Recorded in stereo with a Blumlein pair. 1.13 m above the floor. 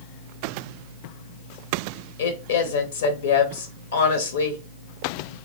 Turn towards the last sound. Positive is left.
turn(degrees=60)